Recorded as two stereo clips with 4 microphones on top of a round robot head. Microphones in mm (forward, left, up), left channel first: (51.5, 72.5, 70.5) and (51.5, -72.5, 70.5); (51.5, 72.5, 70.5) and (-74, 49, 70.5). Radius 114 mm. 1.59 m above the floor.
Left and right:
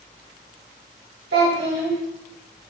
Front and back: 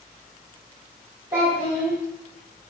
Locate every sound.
1.3 s a child speaking: 100° right, 4 m